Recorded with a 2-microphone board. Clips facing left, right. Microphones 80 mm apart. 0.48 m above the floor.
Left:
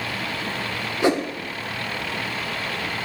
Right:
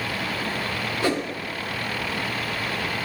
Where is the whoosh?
20° left (ahead or behind), 0.9 m.